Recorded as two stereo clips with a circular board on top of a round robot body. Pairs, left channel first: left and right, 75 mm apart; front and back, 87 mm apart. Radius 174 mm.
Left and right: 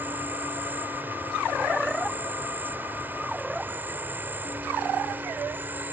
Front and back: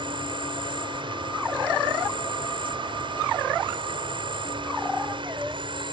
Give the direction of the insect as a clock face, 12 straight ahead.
5 o'clock.